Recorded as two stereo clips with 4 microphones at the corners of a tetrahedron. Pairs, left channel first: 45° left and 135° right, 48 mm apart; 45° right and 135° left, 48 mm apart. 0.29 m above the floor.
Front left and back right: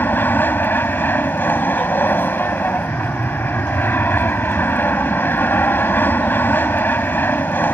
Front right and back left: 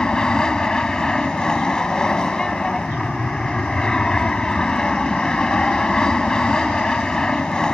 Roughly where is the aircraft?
Ahead left.